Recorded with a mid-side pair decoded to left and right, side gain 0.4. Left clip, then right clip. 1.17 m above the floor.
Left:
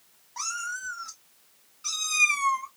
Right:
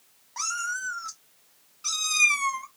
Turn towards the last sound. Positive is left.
turn(degrees=-25)